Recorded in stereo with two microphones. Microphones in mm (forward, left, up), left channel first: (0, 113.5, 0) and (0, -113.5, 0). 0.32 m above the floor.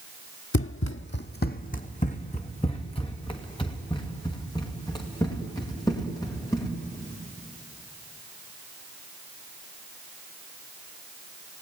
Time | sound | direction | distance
0.5 | running footsteps | 70° left (ahead or behind) | 0.7 m